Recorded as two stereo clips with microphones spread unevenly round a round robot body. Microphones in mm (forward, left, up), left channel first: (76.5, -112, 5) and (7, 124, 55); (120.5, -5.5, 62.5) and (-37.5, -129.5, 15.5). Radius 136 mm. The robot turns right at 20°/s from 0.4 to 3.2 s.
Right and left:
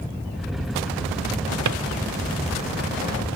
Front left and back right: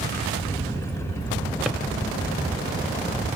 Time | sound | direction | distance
1.6 | a drawer | 125° left | 1.6 m